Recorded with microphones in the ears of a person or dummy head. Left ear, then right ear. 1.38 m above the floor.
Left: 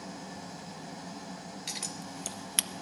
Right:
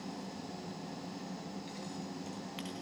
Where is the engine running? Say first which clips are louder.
Left 2 dB; 55° left (ahead or behind), 3 m.